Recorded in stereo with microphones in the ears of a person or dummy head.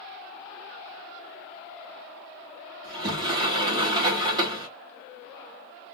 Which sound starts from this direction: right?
A sliding door, at 2.8 s.